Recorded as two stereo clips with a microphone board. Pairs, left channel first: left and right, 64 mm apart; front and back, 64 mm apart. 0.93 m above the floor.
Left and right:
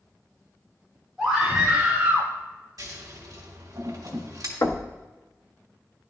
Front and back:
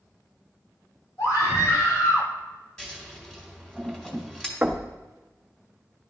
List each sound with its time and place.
1.2 s a scream: straight ahead, 2.5 m; by 2.3 s 30° right, 1.6 m
2.8 s scissors: 80° right, 1.8 m
4.6 s knocking: 115° left, 0.7 m